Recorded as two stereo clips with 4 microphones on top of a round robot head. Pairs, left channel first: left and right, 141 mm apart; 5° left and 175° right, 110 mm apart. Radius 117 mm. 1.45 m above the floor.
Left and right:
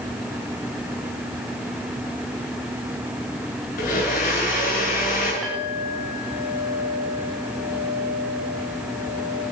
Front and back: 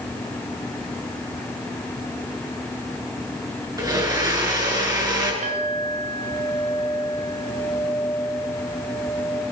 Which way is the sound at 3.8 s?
130° left.